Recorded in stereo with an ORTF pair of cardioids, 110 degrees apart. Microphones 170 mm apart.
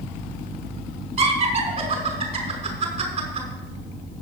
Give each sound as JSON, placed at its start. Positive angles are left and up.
{"t": 1.2, "sound": "laughter", "azimuth_deg": -40, "distance_m": 5.5}